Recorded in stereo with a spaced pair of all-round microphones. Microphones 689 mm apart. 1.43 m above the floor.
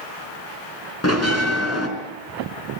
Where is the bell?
20° left (ahead or behind), 4.5 m.